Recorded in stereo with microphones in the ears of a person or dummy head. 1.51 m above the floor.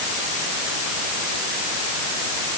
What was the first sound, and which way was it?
Only background noise.